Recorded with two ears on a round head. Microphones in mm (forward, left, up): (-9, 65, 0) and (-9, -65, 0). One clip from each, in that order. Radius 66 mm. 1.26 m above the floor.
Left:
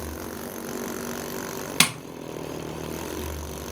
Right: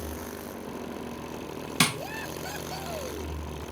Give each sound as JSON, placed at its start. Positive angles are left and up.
{"t": 1.8, "sound": "tapping", "side_deg": 40, "distance_m": 1.1}